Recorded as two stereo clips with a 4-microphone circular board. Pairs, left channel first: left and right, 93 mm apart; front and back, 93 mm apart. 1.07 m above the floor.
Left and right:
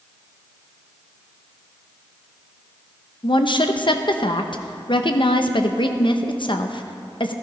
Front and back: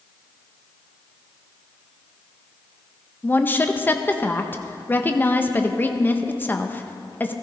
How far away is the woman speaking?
About 0.9 m.